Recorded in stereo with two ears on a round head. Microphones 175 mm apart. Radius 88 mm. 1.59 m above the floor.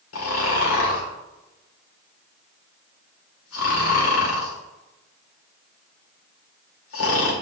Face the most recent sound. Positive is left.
turn(degrees=75)  # may be behind; listen again after turning